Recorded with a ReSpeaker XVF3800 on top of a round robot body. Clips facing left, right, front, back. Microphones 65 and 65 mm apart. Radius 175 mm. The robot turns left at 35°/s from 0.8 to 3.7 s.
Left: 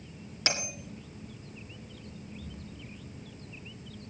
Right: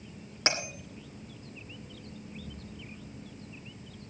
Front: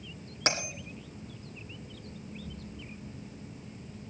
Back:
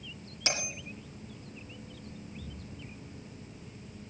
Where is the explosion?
150° right, 4 m; by 4.0 s 160° left, 4 m.